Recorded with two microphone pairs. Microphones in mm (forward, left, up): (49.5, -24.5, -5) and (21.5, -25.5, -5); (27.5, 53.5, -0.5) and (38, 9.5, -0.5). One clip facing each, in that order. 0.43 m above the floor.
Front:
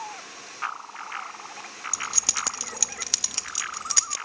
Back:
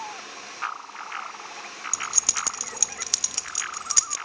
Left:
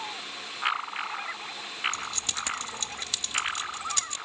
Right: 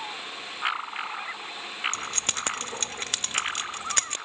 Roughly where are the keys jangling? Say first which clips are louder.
Even, right 2 dB; right.